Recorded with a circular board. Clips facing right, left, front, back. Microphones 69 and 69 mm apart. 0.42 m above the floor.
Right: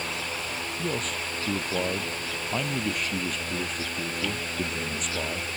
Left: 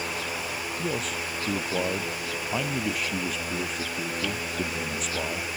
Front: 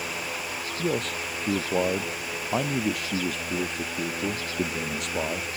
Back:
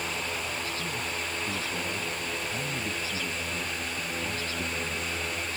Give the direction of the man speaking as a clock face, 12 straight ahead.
12 o'clock.